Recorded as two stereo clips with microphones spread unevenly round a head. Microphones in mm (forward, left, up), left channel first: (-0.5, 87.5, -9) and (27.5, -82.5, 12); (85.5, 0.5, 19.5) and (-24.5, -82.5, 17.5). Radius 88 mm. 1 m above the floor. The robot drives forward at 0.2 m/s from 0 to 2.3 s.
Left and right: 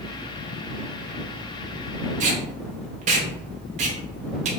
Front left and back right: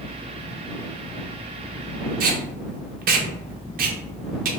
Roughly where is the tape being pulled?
Behind right.